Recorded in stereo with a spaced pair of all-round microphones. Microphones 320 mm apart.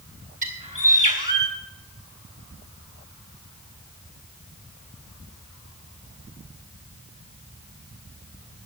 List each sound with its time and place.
0.4 s a bird: 25° right (ahead or behind), 2.5 m